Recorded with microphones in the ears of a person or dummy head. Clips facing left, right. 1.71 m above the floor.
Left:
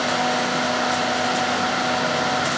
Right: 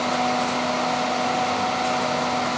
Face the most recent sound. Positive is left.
No sound to turn to.